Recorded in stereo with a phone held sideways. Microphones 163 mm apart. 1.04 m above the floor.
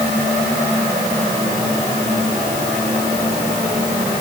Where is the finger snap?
No finger snap in this recording.